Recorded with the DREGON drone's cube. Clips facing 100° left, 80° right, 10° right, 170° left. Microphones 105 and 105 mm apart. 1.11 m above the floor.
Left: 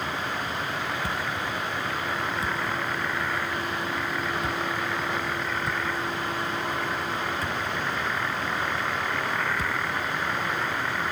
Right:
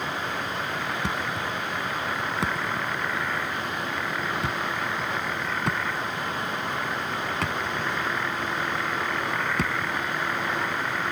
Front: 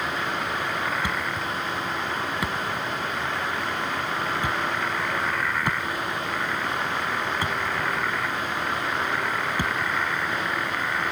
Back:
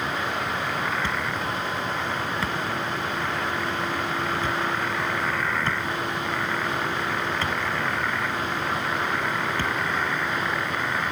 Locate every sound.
1.0 s a thud: 85° right